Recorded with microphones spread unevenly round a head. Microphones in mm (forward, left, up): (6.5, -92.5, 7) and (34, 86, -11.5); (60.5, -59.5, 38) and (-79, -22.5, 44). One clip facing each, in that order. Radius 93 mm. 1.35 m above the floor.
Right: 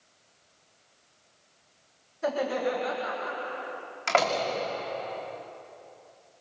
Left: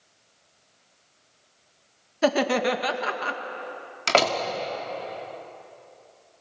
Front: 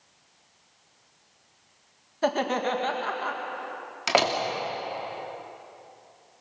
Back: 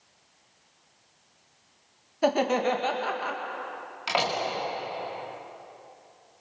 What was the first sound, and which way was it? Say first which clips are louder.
Laughter: left 6 dB, back 2 dB; 85° left.